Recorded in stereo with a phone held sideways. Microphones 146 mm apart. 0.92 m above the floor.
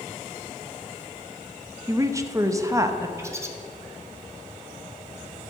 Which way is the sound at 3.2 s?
20° right (ahead or behind).